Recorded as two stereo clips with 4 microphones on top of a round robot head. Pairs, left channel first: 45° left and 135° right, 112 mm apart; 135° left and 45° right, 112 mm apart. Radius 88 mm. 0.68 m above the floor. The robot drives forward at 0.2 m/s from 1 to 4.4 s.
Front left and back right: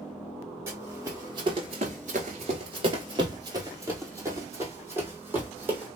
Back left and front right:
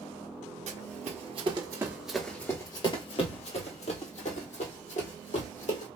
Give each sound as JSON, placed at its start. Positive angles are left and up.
{"t": 0.7, "sound": "running footsteps", "azimuth_deg": -65, "distance_m": 1.2}